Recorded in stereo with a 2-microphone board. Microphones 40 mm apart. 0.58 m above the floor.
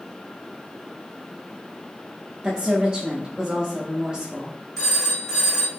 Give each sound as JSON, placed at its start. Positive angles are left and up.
{"t": 2.4, "sound": "a woman speaking", "side_deg": -20, "distance_m": 0.6}
{"t": 4.8, "sound": "a phone ringing", "side_deg": 5, "distance_m": 1.5}